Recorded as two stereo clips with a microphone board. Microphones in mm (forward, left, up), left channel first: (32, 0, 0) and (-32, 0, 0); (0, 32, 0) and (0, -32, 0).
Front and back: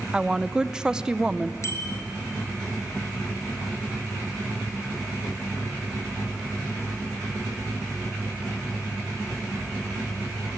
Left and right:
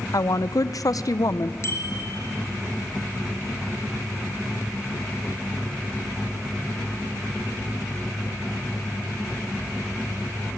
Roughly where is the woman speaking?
Left.